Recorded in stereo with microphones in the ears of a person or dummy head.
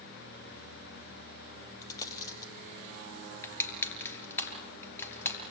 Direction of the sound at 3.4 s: 10° left (ahead or behind).